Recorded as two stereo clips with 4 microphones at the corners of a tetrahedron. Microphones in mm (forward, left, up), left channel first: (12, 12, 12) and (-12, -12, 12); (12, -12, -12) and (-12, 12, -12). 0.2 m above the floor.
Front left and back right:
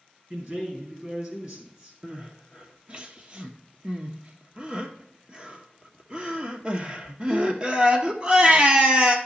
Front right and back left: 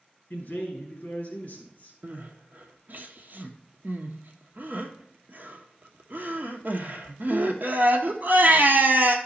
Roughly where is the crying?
Behind.